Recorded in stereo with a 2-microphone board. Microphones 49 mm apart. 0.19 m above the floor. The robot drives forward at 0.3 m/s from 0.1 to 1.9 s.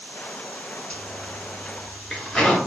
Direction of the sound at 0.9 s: 15° left (ahead or behind).